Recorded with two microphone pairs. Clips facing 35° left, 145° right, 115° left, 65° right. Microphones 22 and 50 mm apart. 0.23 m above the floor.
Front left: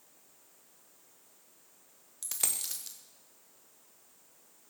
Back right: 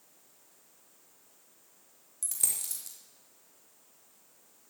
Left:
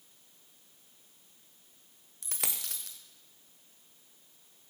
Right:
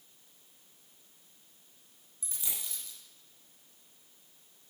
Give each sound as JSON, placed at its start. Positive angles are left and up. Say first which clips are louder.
{"t": 2.2, "sound": "a dropped coin", "louder": "back right 1 dB, left 4 dB", "azimuth_deg": 95, "distance_m": 2.5}